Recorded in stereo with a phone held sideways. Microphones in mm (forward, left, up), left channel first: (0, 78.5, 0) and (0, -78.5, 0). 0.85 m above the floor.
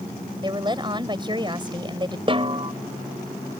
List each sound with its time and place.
0.4 s a woman speaking: 30° right (ahead or behind)
2.3 s a snare drum: 35° right (ahead or behind)